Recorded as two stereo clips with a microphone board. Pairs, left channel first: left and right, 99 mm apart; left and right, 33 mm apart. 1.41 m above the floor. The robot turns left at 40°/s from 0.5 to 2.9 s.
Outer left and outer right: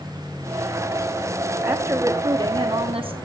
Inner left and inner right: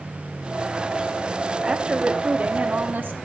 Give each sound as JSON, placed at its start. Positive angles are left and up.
{"t": 1.6, "sound": "a woman speaking", "azimuth_deg": -15, "distance_m": 2.5}